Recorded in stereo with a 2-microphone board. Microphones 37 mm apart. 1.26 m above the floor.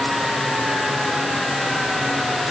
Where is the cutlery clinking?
I don't hear cutlery clinking.